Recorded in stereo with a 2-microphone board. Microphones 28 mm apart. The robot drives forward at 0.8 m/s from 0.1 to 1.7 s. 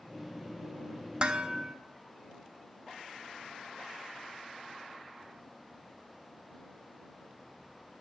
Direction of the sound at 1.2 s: 40° right (ahead or behind).